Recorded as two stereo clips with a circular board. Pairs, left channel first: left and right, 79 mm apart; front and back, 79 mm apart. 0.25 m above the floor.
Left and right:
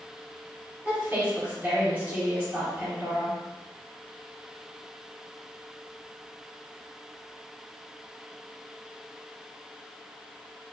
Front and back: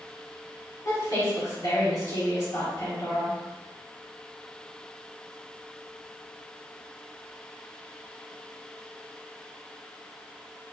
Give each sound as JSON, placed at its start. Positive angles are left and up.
{"t": 0.8, "sound": "a woman speaking", "azimuth_deg": -35, "distance_m": 1.9}